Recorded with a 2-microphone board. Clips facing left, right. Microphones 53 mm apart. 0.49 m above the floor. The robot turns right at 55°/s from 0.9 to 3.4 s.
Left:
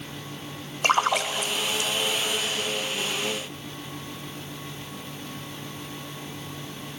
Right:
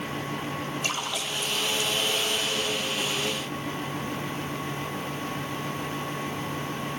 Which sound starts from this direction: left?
A splash, at 0.8 s.